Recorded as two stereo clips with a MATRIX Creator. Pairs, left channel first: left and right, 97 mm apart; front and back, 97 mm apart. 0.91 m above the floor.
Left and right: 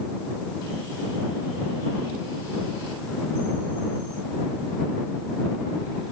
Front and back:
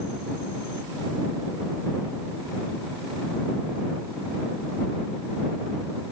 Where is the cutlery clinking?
I don't hear cutlery clinking.